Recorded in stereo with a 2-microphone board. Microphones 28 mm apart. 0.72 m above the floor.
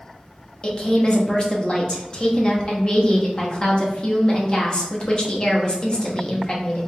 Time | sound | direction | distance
0.6 | a woman speaking | 30° left (ahead or behind) | 0.7 m